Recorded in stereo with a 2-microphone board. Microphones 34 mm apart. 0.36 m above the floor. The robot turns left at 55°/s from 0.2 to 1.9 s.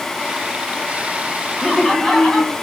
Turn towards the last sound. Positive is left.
turn(degrees=20)  # may be behind; listen again after turning